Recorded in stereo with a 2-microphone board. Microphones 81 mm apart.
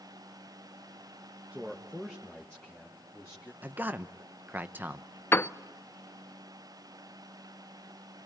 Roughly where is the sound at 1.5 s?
Centre.